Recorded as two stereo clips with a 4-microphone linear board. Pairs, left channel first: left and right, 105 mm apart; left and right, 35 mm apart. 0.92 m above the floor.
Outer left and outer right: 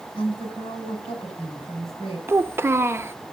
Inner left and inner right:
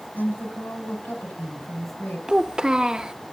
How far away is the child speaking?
About 0.7 m.